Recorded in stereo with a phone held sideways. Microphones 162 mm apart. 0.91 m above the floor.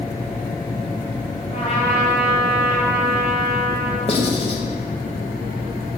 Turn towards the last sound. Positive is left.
turn(degrees=35)  # may be behind; listen again after turning